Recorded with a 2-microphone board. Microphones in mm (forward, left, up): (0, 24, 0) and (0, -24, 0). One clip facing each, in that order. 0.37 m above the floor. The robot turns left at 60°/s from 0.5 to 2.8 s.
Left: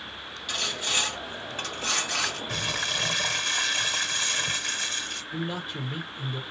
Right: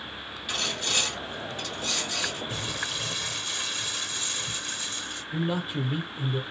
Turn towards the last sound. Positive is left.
turn(degrees=-5)  # may be behind; listen again after turning